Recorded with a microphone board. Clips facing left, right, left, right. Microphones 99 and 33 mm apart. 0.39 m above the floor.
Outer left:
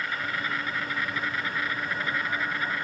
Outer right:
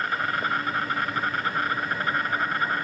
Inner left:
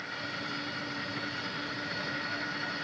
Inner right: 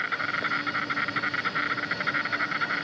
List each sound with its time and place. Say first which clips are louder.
0.0 s an insect: outer right 5 dB, inner right 9 dB; 50° right (ahead or behind)